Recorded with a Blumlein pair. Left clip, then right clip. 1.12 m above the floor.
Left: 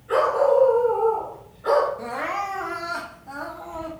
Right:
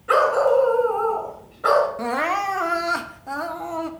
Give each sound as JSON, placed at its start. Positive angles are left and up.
{"t": 0.1, "sound": "a dog barking", "azimuth_deg": -40, "distance_m": 3.0}
{"t": 2.0, "sound": "crying", "azimuth_deg": -25, "distance_m": 1.1}